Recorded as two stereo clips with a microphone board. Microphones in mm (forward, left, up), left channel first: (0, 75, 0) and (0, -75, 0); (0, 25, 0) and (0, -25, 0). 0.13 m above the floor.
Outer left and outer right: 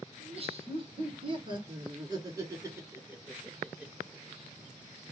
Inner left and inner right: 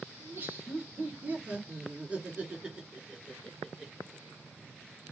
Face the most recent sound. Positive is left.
turn(degrees=-10)  # may be behind; listen again after turning